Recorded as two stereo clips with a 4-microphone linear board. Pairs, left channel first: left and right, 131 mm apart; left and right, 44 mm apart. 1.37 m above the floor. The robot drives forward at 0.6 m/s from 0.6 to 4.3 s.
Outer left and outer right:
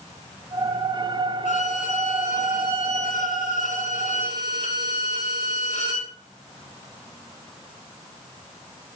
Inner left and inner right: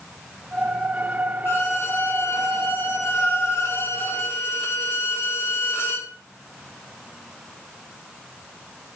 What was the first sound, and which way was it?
A violin, 65° left (ahead or behind).